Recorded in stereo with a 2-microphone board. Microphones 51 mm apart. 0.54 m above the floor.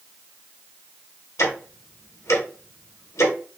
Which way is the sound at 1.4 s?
75° left (ahead or behind).